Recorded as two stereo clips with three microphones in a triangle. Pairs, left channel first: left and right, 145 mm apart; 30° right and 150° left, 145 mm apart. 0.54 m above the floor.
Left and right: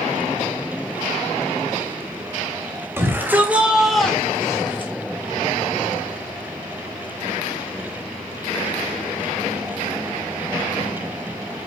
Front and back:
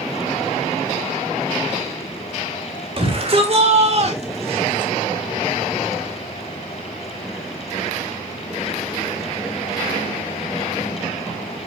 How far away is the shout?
About 3 m.